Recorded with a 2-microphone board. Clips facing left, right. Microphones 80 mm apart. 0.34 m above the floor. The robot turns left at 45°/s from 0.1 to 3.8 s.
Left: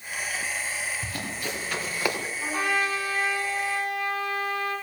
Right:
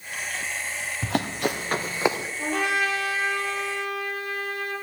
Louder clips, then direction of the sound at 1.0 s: Right 7 dB; 80° right.